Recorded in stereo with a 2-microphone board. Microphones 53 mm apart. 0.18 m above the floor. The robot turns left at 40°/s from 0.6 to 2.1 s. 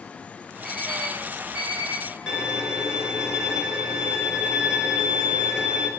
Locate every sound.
0.6 s an alarm clock: 10° left (ahead or behind), 6.5 m; by 2.0 s 50° right (ahead or behind), 6.5 m
2.3 s a violin: 15° right (ahead or behind), 3.5 m